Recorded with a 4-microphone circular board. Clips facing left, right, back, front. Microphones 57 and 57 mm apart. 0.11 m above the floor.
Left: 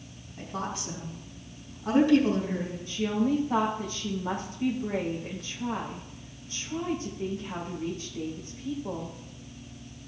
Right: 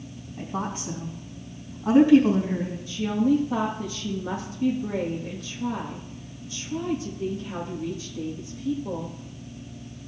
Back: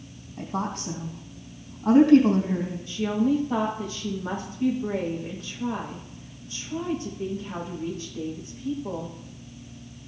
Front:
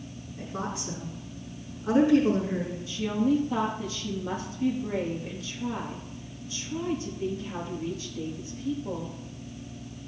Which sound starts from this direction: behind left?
A woman speaking, at 2.9 s.